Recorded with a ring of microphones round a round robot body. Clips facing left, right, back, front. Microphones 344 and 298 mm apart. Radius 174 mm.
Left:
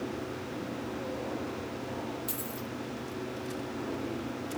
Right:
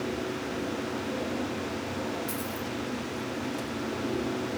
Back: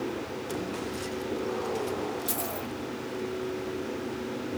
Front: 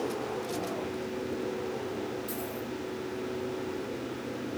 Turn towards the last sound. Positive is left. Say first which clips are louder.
# right 4 dB, back 1 dB
turn(degrees=140)